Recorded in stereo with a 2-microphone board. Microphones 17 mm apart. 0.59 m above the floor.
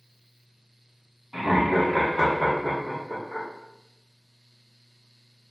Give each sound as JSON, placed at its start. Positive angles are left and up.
{"t": 1.3, "sound": "laughter", "side_deg": -25, "distance_m": 0.9}